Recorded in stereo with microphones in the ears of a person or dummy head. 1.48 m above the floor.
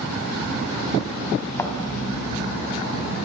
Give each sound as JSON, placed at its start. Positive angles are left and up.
{"t": 1.6, "sound": "a thud", "side_deg": 10, "distance_m": 3.5}